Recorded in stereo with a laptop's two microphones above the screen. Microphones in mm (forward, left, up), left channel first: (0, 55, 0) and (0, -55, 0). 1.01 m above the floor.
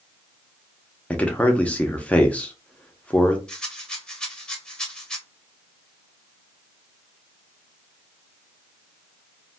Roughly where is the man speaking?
Centre.